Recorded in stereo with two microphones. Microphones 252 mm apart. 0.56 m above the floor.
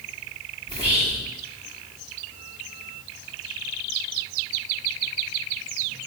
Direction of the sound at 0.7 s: 20° right (ahead or behind).